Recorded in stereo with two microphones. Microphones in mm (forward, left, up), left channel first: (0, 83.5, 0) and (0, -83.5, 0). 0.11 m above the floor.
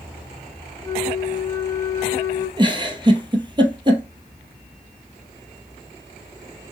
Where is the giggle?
30° right (ahead or behind), 0.9 m.